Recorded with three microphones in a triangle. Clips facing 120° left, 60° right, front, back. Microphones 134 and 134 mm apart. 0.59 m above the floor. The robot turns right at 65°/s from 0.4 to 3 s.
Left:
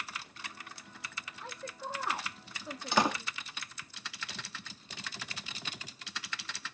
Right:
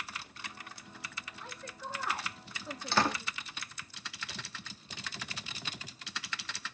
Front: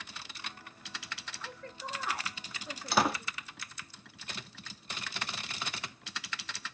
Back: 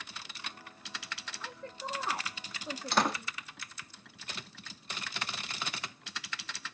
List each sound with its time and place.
1.4 s a woman speaking: 120° left, 0.7 m; by 3.3 s 135° right, 0.7 m
2.9 s a door slam: 70° left, 0.5 m; by 3.2 s 75° left, 0.5 m